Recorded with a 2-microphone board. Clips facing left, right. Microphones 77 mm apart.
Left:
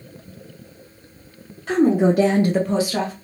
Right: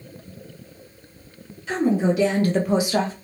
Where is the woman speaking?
50° left (ahead or behind), 1.2 m; by 3.1 s 30° right (ahead or behind), 1.1 m.